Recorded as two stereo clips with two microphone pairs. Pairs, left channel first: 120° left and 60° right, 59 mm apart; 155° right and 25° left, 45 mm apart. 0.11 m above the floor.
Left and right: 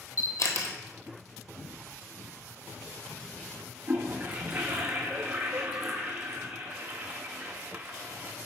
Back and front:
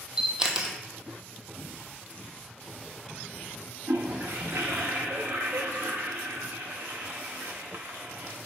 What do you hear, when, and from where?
0.2 s a camera shutter: 95° left, 0.9 m
1.6 s footsteps: 140° left, 2.5 m; by 3.7 s 165° right, 1.1 m
3.9 s a toilet flushing: 10° right, 1.5 m